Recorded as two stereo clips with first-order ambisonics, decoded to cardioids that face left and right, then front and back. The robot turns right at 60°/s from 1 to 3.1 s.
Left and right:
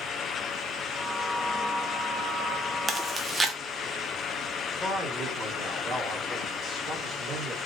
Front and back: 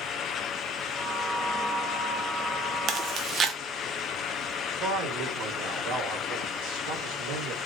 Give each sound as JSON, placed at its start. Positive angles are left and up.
{"t": 2.9, "sound": "chewing", "azimuth_deg": -165, "distance_m": 0.7}
{"t": 4.8, "sound": "a man speaking", "azimuth_deg": -155, "distance_m": 2.0}